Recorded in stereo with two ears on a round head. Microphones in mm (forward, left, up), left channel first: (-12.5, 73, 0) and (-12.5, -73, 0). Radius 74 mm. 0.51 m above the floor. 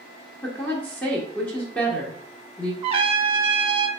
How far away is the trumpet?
About 0.6 m.